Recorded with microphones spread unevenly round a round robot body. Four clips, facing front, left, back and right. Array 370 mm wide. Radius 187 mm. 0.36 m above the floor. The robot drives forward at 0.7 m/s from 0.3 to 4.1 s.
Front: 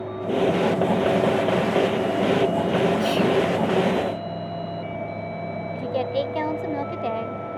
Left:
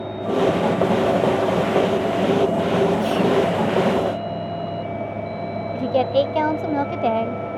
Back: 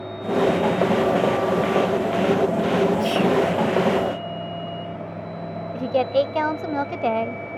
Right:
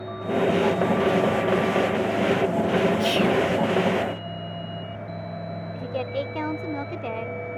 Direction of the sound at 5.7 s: 120° left.